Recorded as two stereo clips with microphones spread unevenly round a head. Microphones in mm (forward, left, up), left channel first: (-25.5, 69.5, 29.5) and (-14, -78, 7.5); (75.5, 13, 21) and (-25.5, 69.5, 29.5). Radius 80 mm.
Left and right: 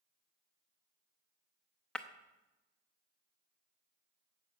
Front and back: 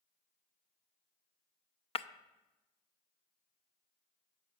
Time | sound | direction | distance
1.9 | breaking glass | 10° left | 0.6 m